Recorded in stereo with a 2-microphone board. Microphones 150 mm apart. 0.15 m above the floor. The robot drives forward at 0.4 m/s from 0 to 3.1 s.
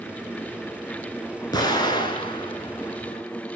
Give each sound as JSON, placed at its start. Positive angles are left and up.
{"t": 1.5, "sound": "an explosion", "side_deg": 30, "distance_m": 1.4}